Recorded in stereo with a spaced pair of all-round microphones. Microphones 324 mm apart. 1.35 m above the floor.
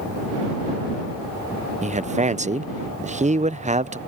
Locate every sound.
1.8 s a man speaking: 20° right (ahead or behind)